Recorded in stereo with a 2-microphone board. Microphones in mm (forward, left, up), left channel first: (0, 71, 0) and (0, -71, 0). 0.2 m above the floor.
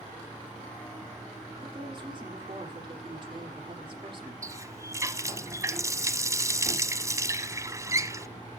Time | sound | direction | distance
1.6 | a woman speaking | 40° right (ahead or behind) | 6 m
4.4 | a running tap | 25° right (ahead or behind) | 0.9 m